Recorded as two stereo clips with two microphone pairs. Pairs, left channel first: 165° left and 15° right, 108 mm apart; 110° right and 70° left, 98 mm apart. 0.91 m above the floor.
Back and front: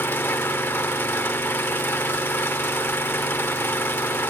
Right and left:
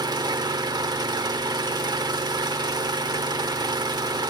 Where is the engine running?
100° left, 0.7 m.